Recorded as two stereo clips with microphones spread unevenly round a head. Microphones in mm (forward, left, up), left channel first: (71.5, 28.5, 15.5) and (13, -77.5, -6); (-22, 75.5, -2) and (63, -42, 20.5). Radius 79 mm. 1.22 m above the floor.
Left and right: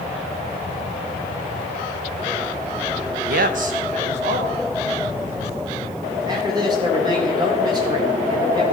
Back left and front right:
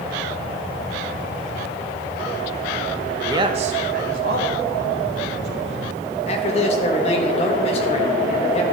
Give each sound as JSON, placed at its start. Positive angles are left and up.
{"t": 3.3, "sound": "a man speaking", "azimuth_deg": -130, "distance_m": 0.6}
{"t": 6.2, "sound": "a man speaking", "azimuth_deg": 175, "distance_m": 1.6}